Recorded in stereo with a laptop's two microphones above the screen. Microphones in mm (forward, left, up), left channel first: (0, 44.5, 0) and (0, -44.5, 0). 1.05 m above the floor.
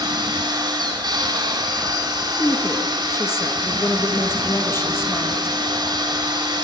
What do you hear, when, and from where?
0.0 s a machine running: 50° right (ahead or behind), 2.5 m
2.4 s a woman speaking: 25° left (ahead or behind), 1.4 m